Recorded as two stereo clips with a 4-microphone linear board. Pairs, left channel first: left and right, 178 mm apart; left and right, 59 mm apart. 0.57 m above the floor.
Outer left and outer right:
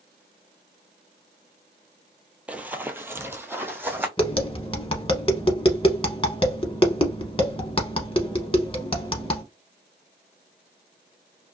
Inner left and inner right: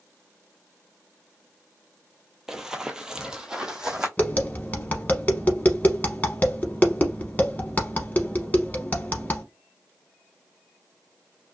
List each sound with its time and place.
2.5 s running footsteps: 10° right (ahead or behind), 0.6 m
4.2 s tapping: 30° left (ahead or behind), 0.8 m